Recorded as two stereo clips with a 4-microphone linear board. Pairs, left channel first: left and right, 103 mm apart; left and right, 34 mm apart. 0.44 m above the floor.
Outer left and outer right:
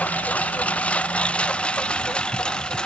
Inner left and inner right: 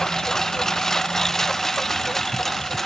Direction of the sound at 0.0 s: 15° left (ahead or behind).